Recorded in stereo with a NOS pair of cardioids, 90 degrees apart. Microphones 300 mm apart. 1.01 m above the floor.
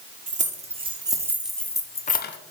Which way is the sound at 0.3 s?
25° right.